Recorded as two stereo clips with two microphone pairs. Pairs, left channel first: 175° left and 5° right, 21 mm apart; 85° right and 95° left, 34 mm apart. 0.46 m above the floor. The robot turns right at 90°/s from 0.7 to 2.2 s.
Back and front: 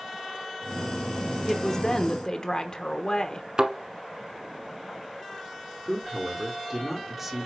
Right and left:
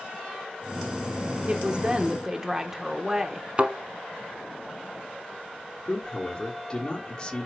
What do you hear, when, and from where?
1.5 s a woman speaking: 95° left, 0.8 m; by 3.5 s 160° left, 0.8 m
3.6 s a thud: 40° left, 1.1 m
5.8 s a man speaking: 65° right, 1.4 m